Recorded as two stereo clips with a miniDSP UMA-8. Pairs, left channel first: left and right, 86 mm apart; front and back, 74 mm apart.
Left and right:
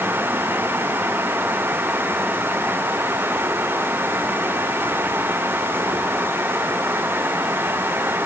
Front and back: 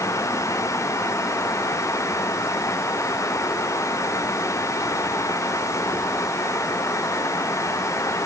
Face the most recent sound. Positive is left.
No sound to turn to.